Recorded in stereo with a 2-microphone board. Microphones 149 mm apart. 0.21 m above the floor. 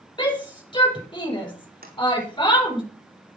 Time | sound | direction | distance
0.2 | a shout | 30° left (ahead or behind) | 6.5 m
1.8 | a sliding door | 90° right | 3.5 m